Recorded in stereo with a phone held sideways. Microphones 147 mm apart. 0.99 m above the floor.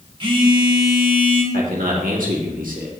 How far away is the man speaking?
About 1.9 m.